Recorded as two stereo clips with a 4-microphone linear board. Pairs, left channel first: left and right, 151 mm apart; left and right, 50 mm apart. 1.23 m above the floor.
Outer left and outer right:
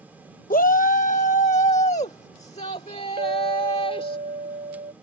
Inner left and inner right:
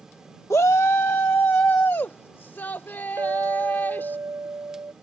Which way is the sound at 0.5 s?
70° left (ahead or behind).